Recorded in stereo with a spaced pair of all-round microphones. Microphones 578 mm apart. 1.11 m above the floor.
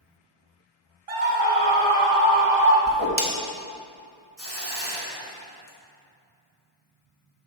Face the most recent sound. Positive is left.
turn(degrees=-25)  # may be behind; listen again after turning